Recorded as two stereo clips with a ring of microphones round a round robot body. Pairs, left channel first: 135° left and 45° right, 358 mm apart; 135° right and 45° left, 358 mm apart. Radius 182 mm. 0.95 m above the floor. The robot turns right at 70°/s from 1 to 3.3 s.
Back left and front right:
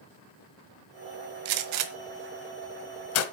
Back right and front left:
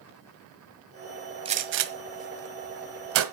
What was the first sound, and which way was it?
A gunshot, 30° right.